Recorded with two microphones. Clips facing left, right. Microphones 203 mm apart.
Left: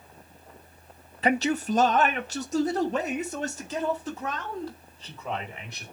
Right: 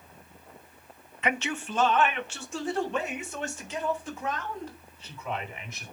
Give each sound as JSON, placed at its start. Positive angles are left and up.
{"t": 1.2, "sound": "a man speaking", "side_deg": 35, "distance_m": 0.5}